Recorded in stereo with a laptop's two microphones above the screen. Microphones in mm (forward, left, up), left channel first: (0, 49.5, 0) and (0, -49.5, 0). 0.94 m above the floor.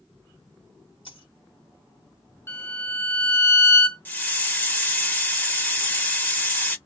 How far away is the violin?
About 0.7 m.